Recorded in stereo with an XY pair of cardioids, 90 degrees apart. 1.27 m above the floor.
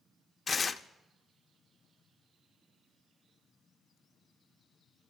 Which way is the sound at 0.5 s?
40° left.